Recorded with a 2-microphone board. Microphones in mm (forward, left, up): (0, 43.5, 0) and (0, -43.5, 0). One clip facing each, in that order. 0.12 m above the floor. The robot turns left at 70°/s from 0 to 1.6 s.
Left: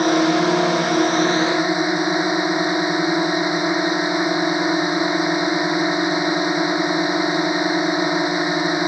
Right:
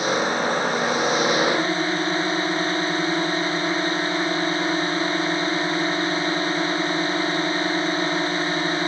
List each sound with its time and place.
0.0 s a drone: 125° left; by 8.9 s 15° left